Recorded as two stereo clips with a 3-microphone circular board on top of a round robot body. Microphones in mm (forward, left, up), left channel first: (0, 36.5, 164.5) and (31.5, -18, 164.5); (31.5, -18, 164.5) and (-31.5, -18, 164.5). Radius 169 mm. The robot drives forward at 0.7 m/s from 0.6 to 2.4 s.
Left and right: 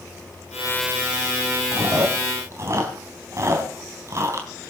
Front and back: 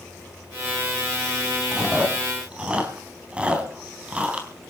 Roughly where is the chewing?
Right.